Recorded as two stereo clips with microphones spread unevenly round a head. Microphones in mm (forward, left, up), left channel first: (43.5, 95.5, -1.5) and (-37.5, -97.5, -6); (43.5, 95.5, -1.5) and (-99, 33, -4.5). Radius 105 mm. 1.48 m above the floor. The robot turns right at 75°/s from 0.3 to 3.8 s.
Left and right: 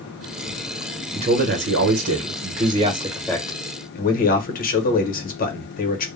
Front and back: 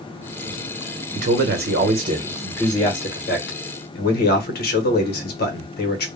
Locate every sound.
1.1 s a man speaking: straight behind, 1.0 m; by 6.1 s 20° left, 1.0 m